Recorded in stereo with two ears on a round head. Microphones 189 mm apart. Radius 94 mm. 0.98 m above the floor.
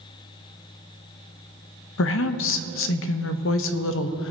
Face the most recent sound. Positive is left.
turn(degrees=65)  # may be behind; listen again after turning